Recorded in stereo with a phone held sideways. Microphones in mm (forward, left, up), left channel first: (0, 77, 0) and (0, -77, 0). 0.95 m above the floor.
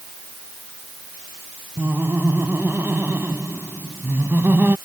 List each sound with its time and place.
1.8 s laughter: 15° right (ahead or behind)